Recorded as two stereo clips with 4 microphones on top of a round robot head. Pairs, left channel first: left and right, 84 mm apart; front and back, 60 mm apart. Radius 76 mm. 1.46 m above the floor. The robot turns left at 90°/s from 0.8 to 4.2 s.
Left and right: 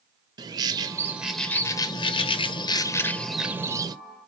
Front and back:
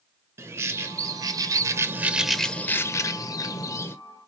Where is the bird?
130° right, 0.8 m; by 4.0 s 55° right, 0.8 m.